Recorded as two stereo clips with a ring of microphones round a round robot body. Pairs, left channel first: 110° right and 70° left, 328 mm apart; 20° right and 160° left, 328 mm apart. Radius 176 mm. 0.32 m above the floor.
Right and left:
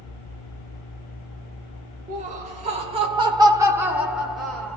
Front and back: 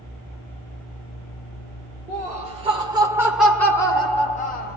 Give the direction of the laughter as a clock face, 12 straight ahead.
8 o'clock.